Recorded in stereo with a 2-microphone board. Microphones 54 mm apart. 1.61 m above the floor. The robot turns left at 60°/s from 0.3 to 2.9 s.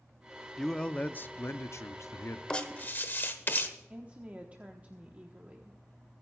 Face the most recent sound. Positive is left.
turn(degrees=-30)  # may be behind; listen again after turning